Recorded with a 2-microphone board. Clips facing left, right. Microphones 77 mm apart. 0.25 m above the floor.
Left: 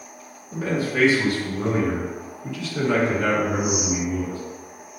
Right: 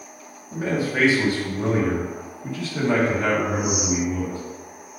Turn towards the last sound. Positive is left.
turn(degrees=-40)  # may be behind; listen again after turning